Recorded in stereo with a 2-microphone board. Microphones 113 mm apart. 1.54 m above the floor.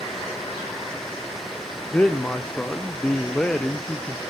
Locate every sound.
1.9 s a man speaking: 10° left (ahead or behind), 0.6 m